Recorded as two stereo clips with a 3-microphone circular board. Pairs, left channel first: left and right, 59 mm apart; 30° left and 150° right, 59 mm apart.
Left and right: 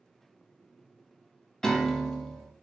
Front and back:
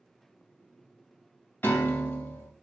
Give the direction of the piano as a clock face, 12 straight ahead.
11 o'clock.